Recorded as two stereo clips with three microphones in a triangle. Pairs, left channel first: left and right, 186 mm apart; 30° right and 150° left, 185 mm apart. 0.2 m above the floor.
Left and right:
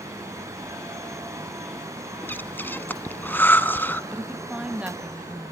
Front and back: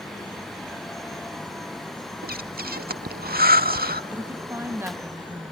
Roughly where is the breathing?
Behind.